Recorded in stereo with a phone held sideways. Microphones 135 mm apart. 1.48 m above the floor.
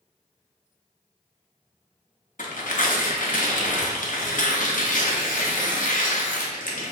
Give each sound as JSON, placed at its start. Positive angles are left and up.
{"t": 2.4, "sound": "tearing paper", "side_deg": 80, "distance_m": 0.5}